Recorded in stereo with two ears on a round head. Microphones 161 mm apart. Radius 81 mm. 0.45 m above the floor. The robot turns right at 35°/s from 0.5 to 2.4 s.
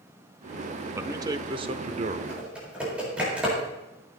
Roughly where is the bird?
No bird in this recording.